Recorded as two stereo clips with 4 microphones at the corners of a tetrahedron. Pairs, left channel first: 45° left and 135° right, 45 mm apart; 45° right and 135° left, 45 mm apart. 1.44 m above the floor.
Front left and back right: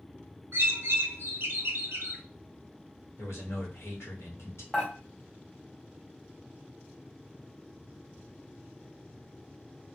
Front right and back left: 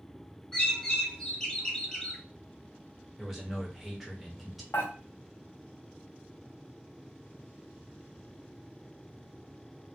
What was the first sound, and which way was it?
A bird, 120° right.